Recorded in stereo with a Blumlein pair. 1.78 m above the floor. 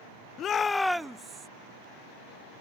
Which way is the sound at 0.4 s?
30° left.